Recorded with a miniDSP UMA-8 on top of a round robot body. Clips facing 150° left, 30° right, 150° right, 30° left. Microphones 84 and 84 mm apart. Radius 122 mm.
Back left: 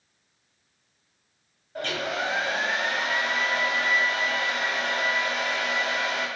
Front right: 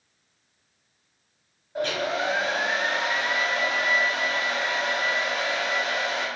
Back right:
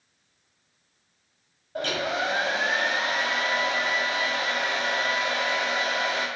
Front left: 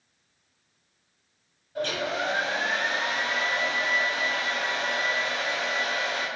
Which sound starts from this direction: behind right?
A hair dryer, at 1.8 s.